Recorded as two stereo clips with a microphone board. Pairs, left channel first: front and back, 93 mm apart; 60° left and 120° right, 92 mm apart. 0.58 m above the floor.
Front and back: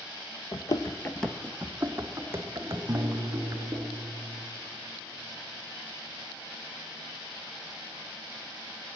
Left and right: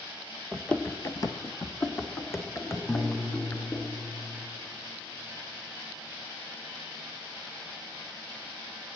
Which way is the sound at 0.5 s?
25° right.